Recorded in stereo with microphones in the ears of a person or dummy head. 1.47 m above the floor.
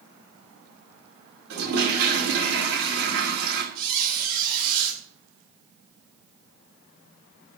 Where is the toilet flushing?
85° right, 2.5 m.